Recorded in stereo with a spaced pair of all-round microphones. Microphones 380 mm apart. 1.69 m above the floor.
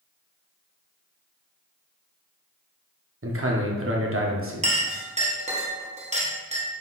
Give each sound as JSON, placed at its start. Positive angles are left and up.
{"t": 3.2, "sound": "a man speaking", "side_deg": -35, "distance_m": 0.7}
{"t": 4.6, "sound": "a clink", "side_deg": -20, "distance_m": 0.8}